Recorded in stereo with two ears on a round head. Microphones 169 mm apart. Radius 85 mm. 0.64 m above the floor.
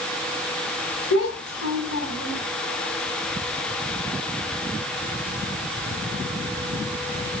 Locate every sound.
1.1 s a child speaking: 65° left (ahead or behind), 4 m